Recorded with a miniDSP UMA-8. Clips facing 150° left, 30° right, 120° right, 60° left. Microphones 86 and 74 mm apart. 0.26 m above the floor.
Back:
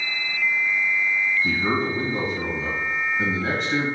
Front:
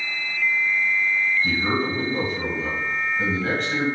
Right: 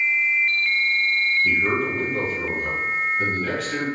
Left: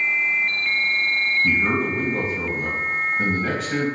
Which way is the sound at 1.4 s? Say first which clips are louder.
Even, left 1 dB; 90° left.